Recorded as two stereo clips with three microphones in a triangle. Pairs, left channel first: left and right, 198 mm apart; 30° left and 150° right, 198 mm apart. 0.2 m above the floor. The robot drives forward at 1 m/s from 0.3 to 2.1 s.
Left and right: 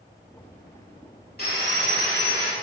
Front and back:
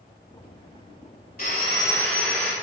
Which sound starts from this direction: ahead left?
Sawing, at 1.4 s.